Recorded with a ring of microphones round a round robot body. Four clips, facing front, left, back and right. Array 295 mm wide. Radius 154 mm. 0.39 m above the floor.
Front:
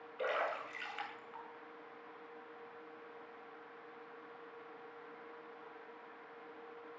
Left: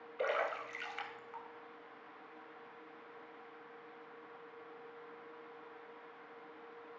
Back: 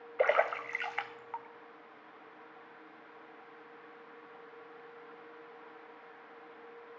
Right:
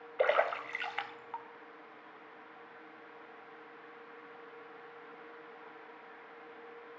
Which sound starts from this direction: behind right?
A splash, at 0.2 s.